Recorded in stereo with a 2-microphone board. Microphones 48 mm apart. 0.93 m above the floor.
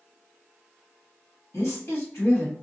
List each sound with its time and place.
1.5 s a woman speaking: 65° left (ahead or behind), 1.5 m